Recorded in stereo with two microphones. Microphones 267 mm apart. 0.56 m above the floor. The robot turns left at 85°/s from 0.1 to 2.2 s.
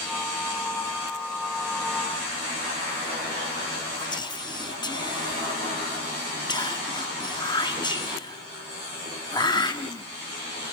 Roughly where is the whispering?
Centre.